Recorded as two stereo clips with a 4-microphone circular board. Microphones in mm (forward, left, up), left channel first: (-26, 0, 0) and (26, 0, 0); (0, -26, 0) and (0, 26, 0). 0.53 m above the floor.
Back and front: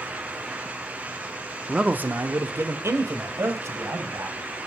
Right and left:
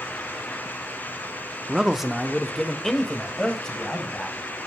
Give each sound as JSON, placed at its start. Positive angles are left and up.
{"t": 1.7, "sound": "a man speaking", "azimuth_deg": 50, "distance_m": 0.7}